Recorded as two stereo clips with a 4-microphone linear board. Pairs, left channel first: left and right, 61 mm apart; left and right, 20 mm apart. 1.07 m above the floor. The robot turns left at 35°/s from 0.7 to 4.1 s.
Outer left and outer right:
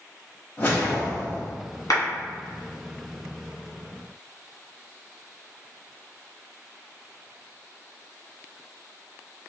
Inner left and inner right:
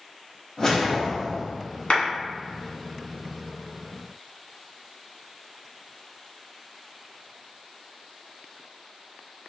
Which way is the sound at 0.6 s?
30° left (ahead or behind).